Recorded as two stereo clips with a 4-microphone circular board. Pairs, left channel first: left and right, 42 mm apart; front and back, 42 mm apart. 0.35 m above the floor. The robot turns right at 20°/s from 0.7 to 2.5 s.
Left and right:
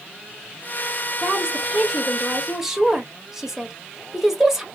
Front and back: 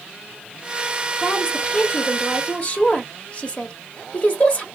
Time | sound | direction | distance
1.2 | a woman speaking | 40° right | 0.9 m